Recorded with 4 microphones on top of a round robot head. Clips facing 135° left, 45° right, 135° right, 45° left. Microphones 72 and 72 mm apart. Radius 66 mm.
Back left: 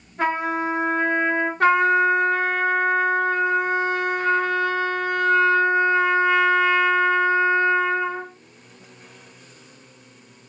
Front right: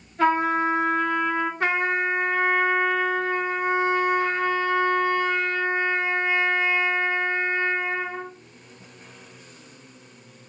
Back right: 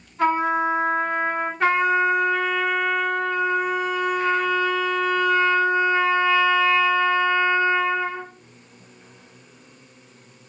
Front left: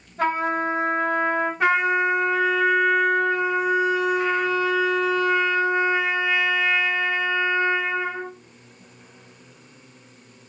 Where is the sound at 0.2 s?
75° left, 2 m.